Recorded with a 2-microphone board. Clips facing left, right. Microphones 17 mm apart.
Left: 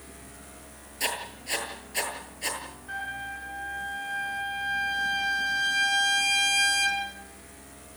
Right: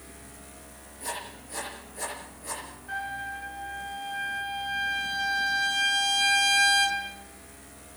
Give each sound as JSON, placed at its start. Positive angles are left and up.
{"t": 1.0, "sound": "writing", "side_deg": 65, "distance_m": 9.0}
{"t": 2.9, "sound": "a trumpet", "side_deg": 0, "distance_m": 6.5}